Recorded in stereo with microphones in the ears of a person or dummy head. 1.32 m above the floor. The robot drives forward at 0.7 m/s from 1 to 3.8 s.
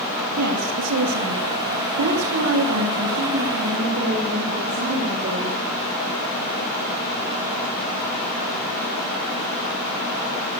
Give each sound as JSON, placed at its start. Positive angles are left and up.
{"t": 0.4, "sound": "a woman speaking", "side_deg": -85, "distance_m": 2.5}